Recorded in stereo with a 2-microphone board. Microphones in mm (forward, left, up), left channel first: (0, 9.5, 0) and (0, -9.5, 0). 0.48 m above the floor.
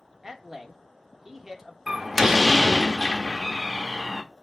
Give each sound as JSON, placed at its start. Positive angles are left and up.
{"t": 0.2, "sound": "a man speaking", "side_deg": -15, "distance_m": 1.0}
{"t": 1.9, "sound": "a door slam", "side_deg": -10, "distance_m": 0.7}